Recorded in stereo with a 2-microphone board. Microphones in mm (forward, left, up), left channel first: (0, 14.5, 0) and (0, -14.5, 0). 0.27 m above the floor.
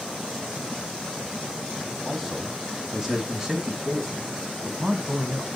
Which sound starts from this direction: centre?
A man speaking, at 2.0 s.